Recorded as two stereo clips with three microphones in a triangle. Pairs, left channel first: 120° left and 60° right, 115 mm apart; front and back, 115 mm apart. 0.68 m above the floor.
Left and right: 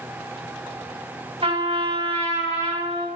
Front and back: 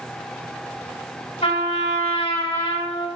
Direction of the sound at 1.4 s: 20° right.